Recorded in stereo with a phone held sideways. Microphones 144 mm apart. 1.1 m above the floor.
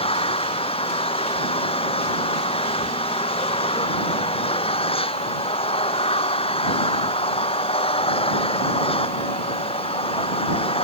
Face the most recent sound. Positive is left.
turn(degrees=40)  # may be behind; listen again after turning